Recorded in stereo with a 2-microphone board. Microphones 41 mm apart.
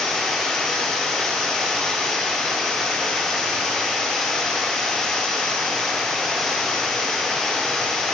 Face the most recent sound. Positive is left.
turn(degrees=10)  # may be behind; listen again after turning